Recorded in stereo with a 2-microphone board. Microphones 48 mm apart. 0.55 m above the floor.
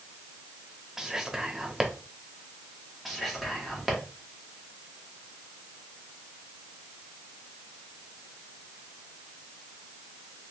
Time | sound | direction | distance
1.0 | whispering | 10° right (ahead or behind) | 0.7 m
3.0 | whispering | centre (ahead or behind) | 1.1 m